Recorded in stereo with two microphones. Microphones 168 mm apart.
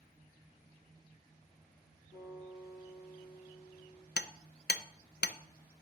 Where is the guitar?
60° left (ahead or behind), 5 m.